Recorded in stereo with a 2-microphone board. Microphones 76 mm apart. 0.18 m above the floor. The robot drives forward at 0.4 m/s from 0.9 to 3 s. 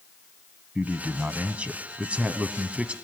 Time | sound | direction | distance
0.8 | a man speaking | 20° right (ahead or behind) | 1.1 m